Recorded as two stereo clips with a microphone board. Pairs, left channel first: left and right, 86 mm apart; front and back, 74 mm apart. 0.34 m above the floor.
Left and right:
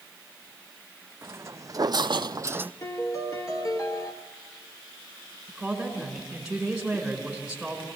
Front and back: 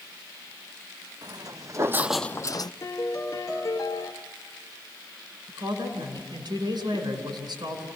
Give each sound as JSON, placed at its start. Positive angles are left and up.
{"t": 1.2, "sound": "footsteps", "azimuth_deg": -150, "distance_m": 1.6}
{"t": 2.8, "sound": "a piano", "azimuth_deg": 40, "distance_m": 1.5}
{"t": 5.5, "sound": "a woman speaking", "azimuth_deg": -175, "distance_m": 4.5}